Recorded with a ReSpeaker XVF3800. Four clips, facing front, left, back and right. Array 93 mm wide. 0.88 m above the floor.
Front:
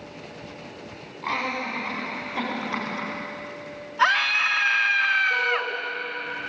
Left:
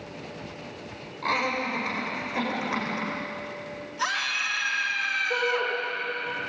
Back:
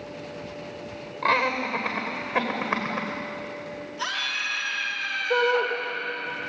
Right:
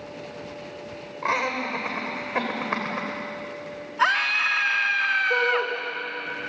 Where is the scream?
35° right, 2.0 m.